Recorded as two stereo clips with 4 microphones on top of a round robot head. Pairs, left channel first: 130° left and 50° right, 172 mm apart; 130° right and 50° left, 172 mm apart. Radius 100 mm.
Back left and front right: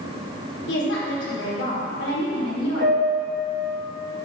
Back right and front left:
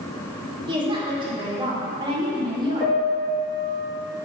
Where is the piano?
40° right, 2.5 m.